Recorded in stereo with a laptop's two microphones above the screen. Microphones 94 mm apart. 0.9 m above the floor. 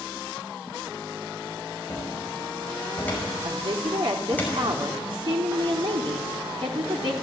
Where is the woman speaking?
60° right (ahead or behind), 3 m.